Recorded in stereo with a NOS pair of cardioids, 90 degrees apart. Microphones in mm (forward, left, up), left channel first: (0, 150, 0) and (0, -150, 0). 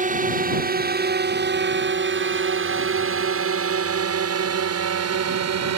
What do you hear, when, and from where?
0.0 s a drone: 30° right; by 5.8 s 60° right